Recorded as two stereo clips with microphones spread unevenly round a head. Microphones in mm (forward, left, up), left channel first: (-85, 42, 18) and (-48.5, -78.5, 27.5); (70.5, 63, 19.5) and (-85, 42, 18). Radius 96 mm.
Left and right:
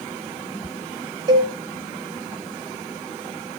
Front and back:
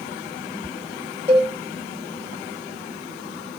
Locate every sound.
1.3 s a cowbell: 90° right, 5 m